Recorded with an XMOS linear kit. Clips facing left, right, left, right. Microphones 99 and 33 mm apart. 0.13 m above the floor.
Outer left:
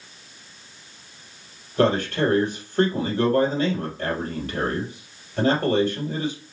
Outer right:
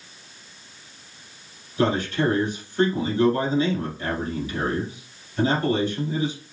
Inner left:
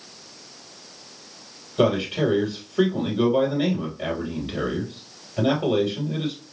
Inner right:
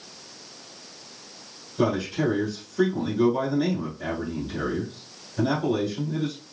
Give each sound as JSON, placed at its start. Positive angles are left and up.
{"t": 1.8, "sound": "a man speaking", "side_deg": 65, "distance_m": 2.5}